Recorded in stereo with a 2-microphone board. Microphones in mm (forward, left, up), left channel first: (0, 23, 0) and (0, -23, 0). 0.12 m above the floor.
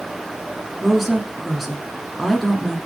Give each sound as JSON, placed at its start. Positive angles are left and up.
{"t": 0.8, "sound": "a woman speaking", "side_deg": 0, "distance_m": 1.1}